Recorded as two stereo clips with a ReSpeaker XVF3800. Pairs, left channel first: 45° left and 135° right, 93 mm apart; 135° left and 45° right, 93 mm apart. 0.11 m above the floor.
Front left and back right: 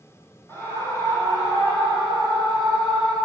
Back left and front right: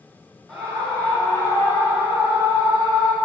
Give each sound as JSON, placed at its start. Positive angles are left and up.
{"t": 0.5, "sound": "a scream", "azimuth_deg": 60, "distance_m": 1.8}